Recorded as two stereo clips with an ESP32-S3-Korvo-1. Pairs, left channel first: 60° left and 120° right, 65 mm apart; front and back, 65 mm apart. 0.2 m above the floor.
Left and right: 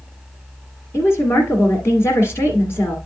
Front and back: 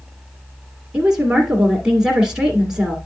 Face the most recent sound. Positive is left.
turn(degrees=95)